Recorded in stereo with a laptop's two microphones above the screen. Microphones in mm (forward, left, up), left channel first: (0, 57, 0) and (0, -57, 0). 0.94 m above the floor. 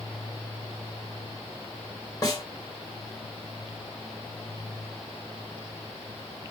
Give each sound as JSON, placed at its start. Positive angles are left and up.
{"t": 2.2, "sound": "a snare drum", "side_deg": 30, "distance_m": 1.1}